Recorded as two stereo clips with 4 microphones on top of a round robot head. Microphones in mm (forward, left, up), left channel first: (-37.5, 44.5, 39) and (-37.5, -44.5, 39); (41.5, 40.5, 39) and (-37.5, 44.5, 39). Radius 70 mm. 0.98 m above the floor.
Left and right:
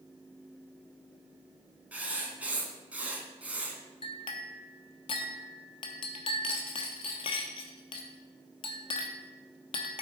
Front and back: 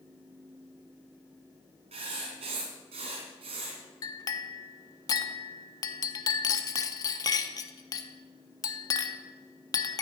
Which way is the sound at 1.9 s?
165° right.